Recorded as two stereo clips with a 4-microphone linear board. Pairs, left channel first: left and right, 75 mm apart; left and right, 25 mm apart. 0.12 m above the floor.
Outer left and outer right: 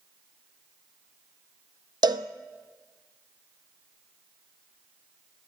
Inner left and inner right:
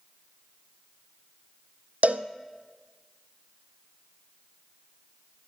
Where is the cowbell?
75° right (ahead or behind), 0.7 m.